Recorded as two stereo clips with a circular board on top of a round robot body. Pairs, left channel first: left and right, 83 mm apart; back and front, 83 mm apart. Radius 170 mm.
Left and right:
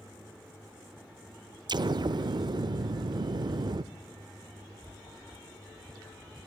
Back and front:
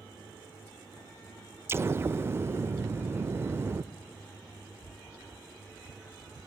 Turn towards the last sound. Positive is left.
turn(degrees=-60)